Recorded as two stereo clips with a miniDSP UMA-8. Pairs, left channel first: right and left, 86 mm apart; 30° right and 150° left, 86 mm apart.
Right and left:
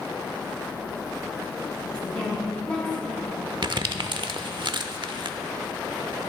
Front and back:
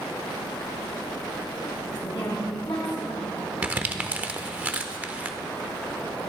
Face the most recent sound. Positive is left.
turn(degrees=80)